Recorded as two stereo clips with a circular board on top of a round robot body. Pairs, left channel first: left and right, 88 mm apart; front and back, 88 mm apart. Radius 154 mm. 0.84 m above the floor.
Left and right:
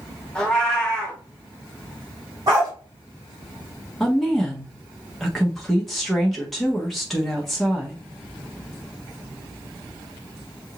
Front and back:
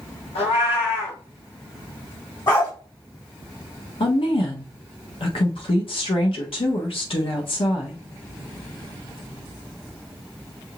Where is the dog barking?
45° right, 3 m.